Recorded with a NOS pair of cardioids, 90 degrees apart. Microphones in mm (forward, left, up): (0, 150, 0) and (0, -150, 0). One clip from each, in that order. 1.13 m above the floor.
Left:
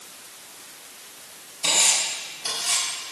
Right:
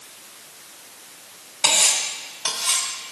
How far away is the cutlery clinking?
About 4 m.